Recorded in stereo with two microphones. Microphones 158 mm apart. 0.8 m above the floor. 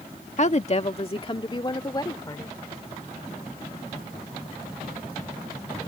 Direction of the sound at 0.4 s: 50° left (ahead or behind).